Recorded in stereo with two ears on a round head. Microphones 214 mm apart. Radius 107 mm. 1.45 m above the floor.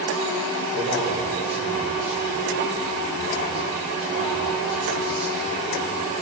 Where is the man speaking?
30° right (ahead or behind), 5 m.